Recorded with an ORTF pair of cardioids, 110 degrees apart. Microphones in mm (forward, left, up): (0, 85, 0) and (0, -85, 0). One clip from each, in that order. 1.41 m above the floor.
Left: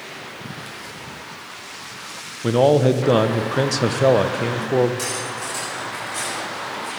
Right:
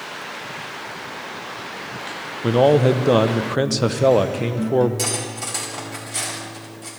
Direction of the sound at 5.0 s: 35° right.